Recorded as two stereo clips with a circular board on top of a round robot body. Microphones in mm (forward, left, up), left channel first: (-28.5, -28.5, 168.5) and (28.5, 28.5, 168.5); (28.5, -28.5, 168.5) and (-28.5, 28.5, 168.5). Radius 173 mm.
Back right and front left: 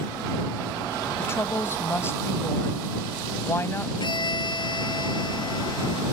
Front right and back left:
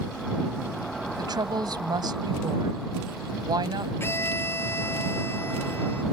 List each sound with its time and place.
1.2 s a woman speaking: 165° left
4.0 s a violin: 105° right